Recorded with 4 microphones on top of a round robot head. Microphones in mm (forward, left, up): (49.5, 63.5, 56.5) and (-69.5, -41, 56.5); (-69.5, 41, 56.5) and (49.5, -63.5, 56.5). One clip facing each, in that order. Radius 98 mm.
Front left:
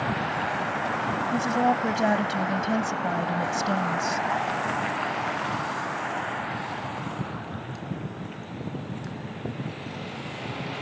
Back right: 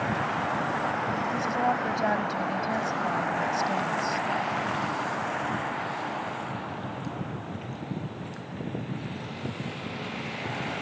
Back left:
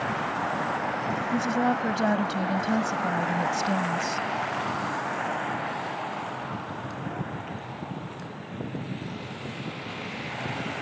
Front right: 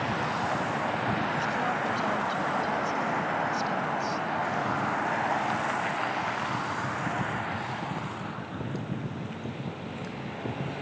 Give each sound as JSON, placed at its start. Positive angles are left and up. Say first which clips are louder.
{"t": 1.3, "sound": "a woman speaking", "louder": "front left 5 dB, back left 5 dB", "azimuth_deg": 105}